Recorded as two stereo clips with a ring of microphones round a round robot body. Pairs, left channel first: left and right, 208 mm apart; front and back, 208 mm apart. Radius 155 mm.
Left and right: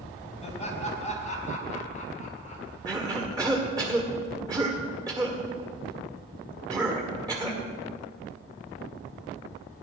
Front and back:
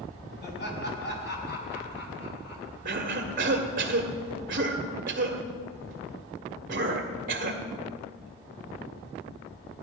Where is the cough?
155° right, 1.7 m.